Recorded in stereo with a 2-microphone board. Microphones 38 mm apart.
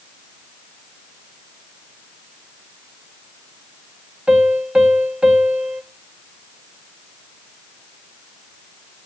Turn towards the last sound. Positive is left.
turn(degrees=-25)  # may be behind; listen again after turning